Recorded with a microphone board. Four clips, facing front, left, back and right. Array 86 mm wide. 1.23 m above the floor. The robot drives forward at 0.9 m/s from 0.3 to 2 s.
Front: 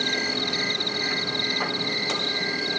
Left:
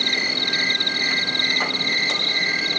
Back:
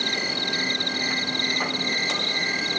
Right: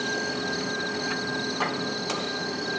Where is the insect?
90° left; by 2.8 s 105° left.